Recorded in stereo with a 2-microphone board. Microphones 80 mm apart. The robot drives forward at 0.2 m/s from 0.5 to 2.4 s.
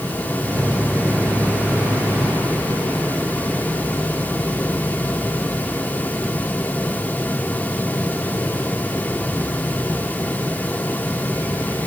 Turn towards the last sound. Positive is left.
No sound to turn to.